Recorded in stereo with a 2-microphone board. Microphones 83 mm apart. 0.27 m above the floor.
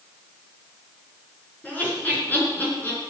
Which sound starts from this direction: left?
Laughter, at 1.6 s.